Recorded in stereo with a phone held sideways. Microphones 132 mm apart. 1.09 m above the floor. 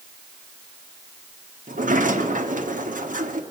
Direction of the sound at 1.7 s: 80° right.